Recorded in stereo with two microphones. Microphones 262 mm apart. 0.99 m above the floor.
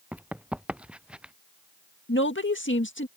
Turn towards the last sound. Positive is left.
turn(degrees=45)  # may be behind; listen again after turning